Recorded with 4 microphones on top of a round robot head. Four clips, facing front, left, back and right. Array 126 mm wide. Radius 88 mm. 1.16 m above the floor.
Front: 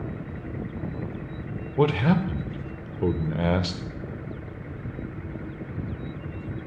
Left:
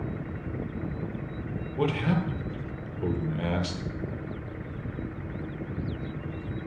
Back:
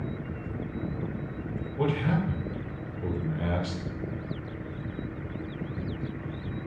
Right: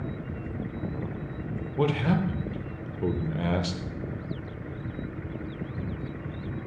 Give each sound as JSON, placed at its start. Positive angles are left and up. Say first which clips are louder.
{"t": 1.8, "sound": "a man speaking", "louder": "right 2 dB, front 6 dB", "azimuth_deg": -15, "distance_m": 0.5}